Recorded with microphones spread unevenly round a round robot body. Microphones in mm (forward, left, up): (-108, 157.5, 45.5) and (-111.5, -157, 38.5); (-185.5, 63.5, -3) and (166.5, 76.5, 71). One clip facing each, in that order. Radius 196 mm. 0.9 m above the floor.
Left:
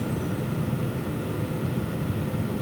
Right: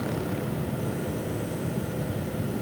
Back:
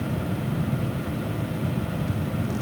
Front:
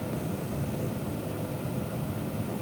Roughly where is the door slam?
No door slam in this recording.